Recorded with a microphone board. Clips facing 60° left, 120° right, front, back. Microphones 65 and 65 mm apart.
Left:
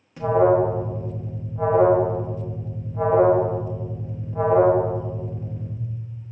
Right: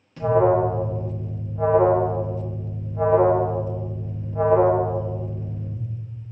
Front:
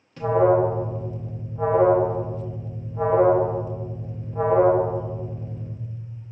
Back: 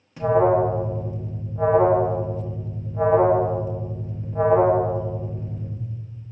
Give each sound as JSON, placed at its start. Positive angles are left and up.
{"t": 0.2, "sound": "an alarm", "azimuth_deg": 120, "distance_m": 0.7}